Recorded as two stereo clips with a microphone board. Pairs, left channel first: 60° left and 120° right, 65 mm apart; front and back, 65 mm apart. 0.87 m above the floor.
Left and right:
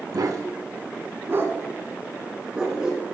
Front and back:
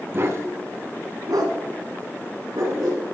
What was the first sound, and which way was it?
A dog barking, 130° right.